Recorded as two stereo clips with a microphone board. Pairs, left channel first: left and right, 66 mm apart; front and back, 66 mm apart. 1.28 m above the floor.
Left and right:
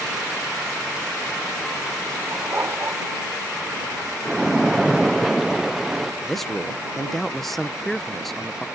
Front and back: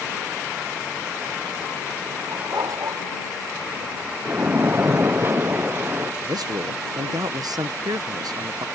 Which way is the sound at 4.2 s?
175° right.